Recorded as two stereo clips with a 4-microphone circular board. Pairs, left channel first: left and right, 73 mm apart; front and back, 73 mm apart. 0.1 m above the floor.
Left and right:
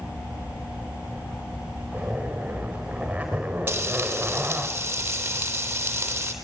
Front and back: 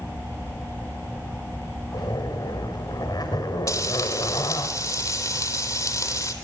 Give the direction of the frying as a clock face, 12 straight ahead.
1 o'clock.